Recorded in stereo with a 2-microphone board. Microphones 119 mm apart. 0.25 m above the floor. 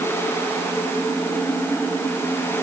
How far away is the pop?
I don't hear a pop.